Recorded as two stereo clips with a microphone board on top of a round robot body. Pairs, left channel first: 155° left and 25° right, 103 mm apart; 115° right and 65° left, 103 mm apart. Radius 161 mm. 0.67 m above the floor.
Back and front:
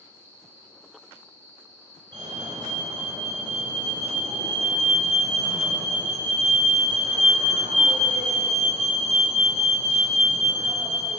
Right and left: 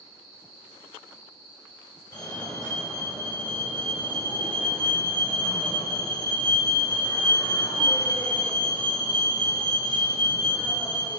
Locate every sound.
0.0 s an insect: 90° right, 8.5 m
2.1 s a fire alarm: 70° right, 4.5 m